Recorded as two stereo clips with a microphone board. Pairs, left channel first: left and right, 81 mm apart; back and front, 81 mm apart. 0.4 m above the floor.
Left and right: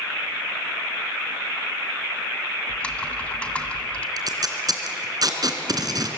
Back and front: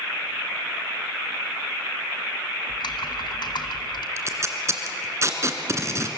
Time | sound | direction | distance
2.7 | typing on a keyboard | 165° left | 2.0 m
4.2 | tape being pulled | 55° right | 2.5 m